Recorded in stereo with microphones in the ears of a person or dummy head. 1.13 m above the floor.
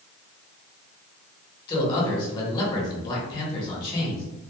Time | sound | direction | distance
1.7 | a man speaking | 25° left (ahead or behind) | 1.3 m